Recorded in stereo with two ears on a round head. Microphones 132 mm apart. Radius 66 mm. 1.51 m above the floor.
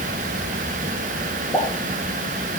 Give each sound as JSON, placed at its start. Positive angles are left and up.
{"t": 1.5, "sound": "a pop", "side_deg": 0, "distance_m": 3.0}